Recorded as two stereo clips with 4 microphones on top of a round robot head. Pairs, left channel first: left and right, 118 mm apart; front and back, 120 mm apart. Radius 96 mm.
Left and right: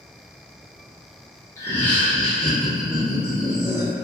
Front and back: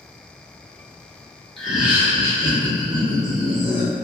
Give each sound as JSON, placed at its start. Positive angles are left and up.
{"t": 1.6, "sound": "laughter", "azimuth_deg": 80, "distance_m": 0.8}